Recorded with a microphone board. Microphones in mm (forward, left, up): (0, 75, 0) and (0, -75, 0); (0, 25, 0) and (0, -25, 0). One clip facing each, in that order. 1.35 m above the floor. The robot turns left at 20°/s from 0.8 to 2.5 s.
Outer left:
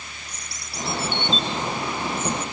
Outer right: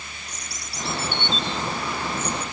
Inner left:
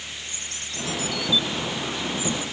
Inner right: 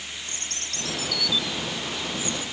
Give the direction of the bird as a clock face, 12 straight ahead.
3 o'clock.